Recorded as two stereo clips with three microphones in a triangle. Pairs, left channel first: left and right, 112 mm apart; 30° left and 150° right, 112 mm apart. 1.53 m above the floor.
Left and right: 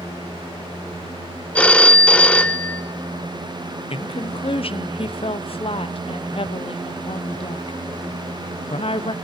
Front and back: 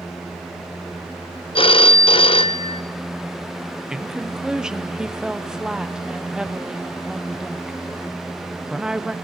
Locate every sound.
1.6 s a phone ringing: 15° left, 0.7 m
3.9 s a woman speaking: 125° left, 0.8 m